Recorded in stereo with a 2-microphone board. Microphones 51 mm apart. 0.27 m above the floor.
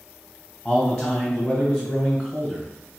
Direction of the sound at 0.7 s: 5° right (ahead or behind).